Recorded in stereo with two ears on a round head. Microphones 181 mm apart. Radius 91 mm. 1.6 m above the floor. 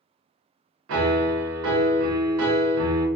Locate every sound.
0.9 s a piano: 80° right, 0.6 m